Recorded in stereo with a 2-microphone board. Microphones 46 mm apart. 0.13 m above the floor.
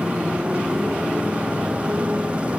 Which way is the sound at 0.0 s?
25° right (ahead or behind).